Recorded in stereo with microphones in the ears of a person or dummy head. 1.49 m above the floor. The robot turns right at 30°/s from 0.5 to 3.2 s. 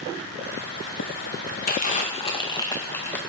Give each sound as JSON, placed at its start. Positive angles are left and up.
{"t": 1.7, "sound": "crumpling", "azimuth_deg": 130, "distance_m": 2.0}